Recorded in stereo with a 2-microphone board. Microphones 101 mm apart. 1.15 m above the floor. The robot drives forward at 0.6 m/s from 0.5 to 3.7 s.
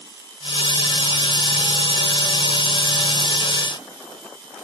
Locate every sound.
Only background noise.